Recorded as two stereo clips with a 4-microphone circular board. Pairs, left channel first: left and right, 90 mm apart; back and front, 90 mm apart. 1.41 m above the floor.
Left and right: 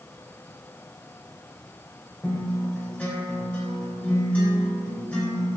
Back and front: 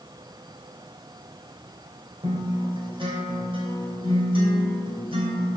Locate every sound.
2.2 s a guitar: 15° left, 3.5 m